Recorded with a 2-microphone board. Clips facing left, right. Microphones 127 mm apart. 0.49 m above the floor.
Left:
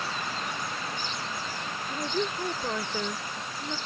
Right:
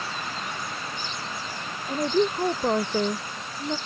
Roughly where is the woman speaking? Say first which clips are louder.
Right 8 dB; right.